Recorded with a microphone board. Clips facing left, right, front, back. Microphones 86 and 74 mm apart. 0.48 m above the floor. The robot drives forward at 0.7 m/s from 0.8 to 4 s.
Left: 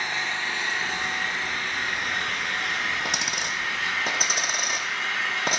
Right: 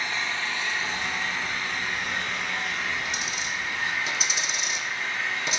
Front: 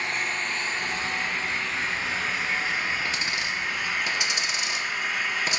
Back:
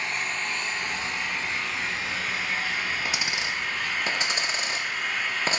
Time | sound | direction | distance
0.0 | an engine running | 45° left | 4 m
3.0 | a dropped coin | 100° left | 1.3 m